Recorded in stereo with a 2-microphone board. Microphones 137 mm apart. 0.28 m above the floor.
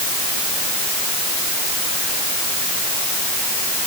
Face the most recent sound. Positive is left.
No sound to turn to.